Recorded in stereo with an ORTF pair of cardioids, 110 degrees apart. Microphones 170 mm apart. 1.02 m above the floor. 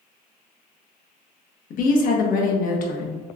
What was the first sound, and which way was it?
A woman speaking, 55° left.